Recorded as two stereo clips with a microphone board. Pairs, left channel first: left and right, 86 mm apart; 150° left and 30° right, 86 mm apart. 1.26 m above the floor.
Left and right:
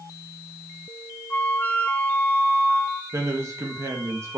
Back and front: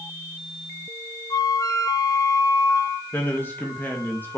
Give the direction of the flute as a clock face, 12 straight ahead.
7 o'clock.